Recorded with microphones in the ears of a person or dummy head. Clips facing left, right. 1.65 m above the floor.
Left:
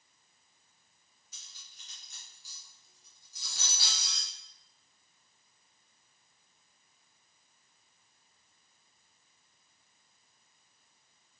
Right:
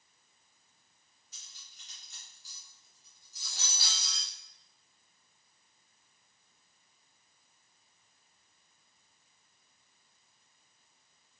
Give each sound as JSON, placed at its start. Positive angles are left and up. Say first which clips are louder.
{"t": 1.3, "sound": "cutlery clinking", "louder": "even", "side_deg": 45, "distance_m": 1.9}